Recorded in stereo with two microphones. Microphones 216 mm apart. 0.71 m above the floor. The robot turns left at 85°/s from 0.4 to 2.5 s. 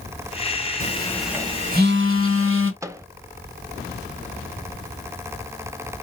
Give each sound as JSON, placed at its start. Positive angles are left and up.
{"t": 0.8, "sound": "a phone buzzing", "azimuth_deg": 35, "distance_m": 1.2}
{"t": 2.8, "sound": "a microwave", "side_deg": -15, "distance_m": 0.5}